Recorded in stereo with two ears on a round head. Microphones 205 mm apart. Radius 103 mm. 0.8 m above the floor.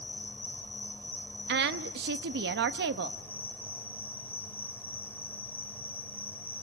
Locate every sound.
0.0 s an insect: 10° left (ahead or behind), 3.5 m
1.5 s a woman speaking: 50° right (ahead or behind), 1.0 m